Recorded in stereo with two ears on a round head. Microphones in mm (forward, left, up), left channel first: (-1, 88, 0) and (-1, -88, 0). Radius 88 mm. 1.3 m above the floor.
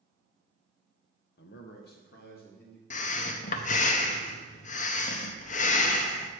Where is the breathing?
40° left (ahead or behind), 0.6 m.